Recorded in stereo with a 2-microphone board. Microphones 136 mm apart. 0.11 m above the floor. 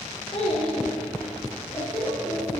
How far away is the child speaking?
About 1.6 m.